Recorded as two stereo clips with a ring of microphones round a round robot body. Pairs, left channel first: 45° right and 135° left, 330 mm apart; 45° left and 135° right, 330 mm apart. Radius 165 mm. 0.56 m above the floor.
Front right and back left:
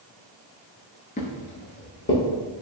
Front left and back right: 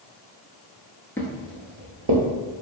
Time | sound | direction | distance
1.2 | footsteps | 25° right | 0.5 m